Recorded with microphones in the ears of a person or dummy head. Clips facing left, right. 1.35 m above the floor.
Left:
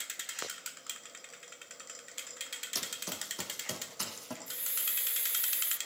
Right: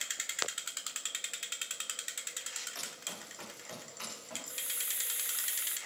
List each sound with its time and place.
2.8 s running footsteps: 55° left (ahead or behind), 4 m; by 4.4 s 65° left (ahead or behind), 4.5 m
4.5 s a hiss: 5° right (ahead or behind), 0.7 m